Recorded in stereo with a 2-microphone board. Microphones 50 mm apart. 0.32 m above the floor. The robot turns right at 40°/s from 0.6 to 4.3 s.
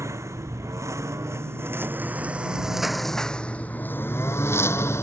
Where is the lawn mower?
80° right; by 5.0 s 65° left (ahead or behind).